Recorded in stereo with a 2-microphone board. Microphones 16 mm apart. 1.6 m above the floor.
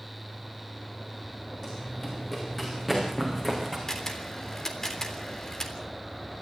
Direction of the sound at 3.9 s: 35° left (ahead or behind).